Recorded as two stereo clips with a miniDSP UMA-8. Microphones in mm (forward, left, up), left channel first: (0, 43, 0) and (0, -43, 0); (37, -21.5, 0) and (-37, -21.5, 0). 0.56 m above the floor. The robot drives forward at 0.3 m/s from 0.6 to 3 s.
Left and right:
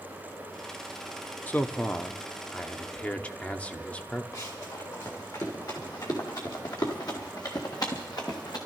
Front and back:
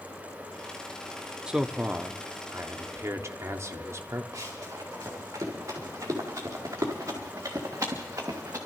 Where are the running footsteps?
135° left, 6 m; by 8.6 s 130° left, 3 m.